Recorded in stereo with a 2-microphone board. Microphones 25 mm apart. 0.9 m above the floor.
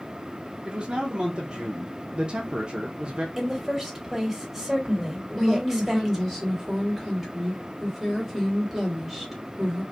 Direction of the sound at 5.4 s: 5° right (ahead or behind).